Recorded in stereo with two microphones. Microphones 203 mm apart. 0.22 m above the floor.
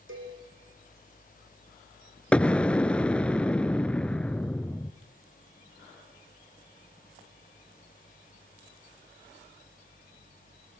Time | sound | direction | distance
0.1 | a cowbell | 80° right | 8 m
2.3 | an explosion | 5° left (ahead or behind) | 0.7 m